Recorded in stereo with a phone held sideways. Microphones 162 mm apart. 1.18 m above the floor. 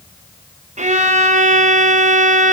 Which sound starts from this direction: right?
A violin, at 0.8 s.